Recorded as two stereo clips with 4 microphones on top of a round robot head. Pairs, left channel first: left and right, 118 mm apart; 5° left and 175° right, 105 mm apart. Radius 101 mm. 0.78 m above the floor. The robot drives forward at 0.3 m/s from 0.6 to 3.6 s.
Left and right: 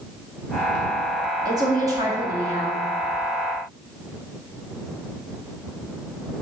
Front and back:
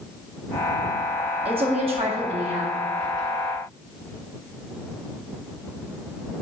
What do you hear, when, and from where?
1.4 s a woman speaking: 150° right, 2 m; by 2.9 s 155° right, 2.5 m